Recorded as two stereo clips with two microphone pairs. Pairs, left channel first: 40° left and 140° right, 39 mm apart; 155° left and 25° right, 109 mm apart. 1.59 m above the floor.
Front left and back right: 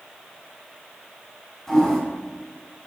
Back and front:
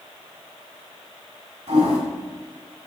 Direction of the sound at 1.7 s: 40° right.